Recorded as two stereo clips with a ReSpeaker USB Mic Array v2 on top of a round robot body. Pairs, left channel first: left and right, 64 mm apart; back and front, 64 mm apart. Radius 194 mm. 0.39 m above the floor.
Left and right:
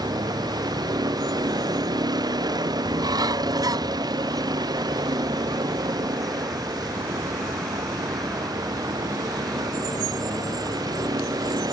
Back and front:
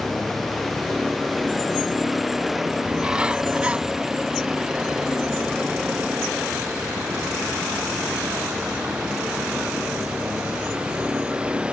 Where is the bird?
75° right.